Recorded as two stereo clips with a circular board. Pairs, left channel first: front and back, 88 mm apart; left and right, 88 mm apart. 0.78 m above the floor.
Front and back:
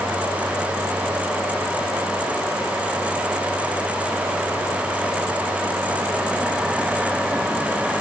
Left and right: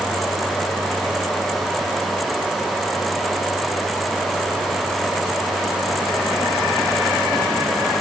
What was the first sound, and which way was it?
Only background noise.